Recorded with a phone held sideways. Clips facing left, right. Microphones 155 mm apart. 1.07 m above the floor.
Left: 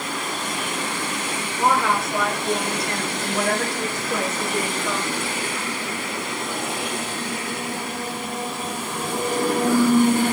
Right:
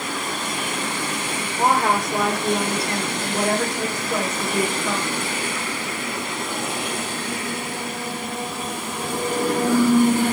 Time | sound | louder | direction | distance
1.6 | a woman speaking | right 1 dB | 45° right (ahead or behind) | 4 m